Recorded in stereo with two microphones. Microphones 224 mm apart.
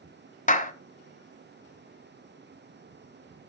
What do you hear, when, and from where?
0.5 s a clap: 35° left (ahead or behind), 1.1 m